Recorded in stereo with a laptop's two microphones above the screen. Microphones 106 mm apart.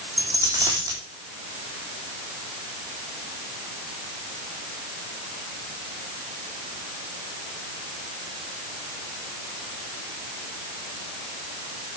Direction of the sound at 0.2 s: 30° right (ahead or behind).